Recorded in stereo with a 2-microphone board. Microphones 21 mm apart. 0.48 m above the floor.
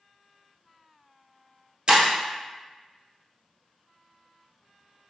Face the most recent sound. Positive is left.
turn(degrees=-40)  # may be behind; listen again after turning